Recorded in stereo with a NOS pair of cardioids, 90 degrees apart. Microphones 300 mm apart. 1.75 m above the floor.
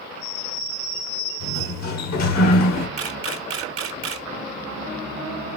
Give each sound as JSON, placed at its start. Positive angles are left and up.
{"t": 1.4, "sound": "a sliding door", "azimuth_deg": 60, "distance_m": 1.6}
{"t": 3.0, "sound": "a camera shutter", "azimuth_deg": -50, "distance_m": 1.2}